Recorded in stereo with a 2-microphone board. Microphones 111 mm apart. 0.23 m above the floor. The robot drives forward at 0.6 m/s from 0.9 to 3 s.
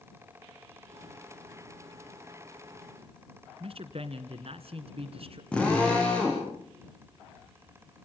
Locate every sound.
3.6 s a man speaking: 60° right (ahead or behind), 2 m
5.5 s a drill: 10° left (ahead or behind), 7.5 m